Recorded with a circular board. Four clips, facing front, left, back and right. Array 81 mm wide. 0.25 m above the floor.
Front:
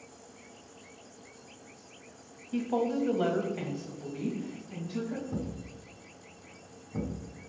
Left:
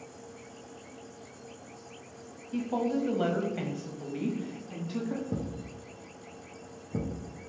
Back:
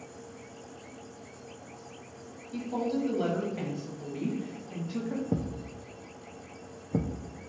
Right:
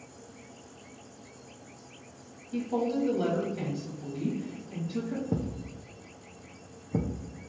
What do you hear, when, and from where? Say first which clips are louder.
2.5 s a woman speaking: even, front 2 dB; 15° left, 1.2 m; by 5.2 s 125° left, 1.6 m
5.3 s a thud: right 2 dB, back 4 dB; 155° right, 0.6 m